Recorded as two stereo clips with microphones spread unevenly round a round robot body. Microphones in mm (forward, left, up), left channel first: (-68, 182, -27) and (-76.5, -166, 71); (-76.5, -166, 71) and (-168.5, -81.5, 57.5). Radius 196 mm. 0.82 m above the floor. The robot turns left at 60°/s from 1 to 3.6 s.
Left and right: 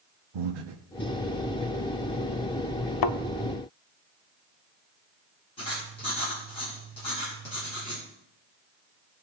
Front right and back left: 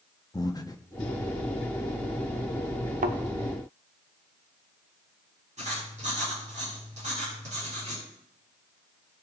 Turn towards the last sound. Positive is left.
turn(degrees=160)